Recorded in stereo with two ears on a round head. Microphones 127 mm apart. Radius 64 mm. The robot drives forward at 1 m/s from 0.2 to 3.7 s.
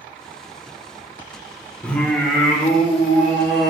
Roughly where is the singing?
Centre.